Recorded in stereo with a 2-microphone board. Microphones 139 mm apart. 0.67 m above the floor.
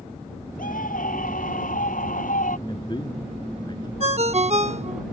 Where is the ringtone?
50° right (ahead or behind).